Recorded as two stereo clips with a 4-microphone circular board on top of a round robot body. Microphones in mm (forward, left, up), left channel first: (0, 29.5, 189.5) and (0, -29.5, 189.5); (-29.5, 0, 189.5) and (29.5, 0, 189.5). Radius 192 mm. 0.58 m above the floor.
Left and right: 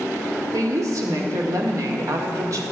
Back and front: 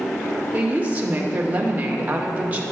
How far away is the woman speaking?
About 2 m.